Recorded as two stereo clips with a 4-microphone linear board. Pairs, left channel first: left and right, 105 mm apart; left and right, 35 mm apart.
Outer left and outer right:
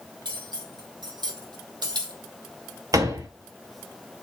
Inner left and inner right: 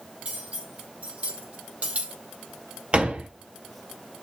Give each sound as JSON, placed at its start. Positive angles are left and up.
{"t": 0.2, "sound": "cutlery clinking", "side_deg": -40, "distance_m": 2.5}
{"t": 2.9, "sound": "a door slam", "side_deg": -35, "distance_m": 1.7}